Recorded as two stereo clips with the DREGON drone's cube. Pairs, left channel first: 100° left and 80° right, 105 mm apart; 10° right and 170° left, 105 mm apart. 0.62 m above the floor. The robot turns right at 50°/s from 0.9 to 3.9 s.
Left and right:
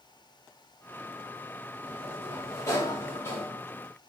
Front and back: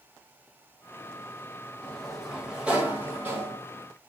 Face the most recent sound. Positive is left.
turn(degrees=160)